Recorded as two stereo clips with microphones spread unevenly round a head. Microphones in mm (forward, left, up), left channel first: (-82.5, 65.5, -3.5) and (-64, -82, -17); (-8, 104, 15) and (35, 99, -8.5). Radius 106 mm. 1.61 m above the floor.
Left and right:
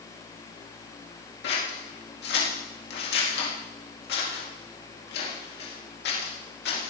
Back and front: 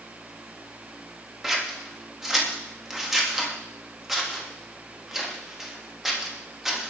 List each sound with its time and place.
1.4 s scissors: 80° left, 3.5 m